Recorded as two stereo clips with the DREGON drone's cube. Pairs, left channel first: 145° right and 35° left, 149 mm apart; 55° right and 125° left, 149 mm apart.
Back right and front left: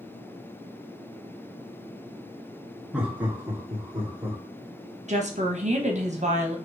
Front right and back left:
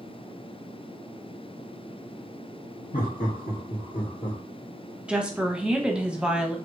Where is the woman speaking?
40° left, 0.9 m.